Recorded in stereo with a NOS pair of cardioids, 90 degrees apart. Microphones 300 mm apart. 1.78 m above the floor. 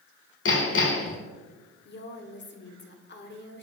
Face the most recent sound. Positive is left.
turn(degrees=40)